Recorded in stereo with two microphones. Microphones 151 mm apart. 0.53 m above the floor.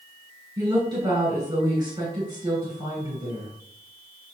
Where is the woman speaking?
25° right (ahead or behind), 2.5 m.